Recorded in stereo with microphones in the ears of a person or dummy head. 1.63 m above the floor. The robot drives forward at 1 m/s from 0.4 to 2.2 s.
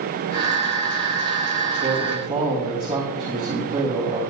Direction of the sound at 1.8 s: 40° right (ahead or behind).